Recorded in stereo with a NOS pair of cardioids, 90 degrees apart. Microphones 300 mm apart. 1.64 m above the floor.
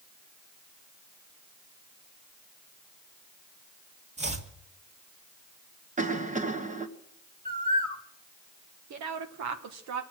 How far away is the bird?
About 1.6 m.